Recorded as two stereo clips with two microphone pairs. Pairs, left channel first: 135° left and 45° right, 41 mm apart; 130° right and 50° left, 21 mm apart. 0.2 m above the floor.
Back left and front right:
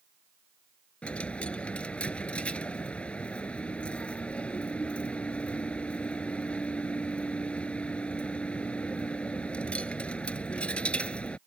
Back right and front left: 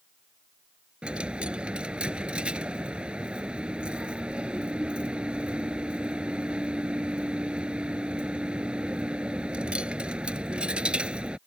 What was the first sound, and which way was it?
A dropped coin, 75° left.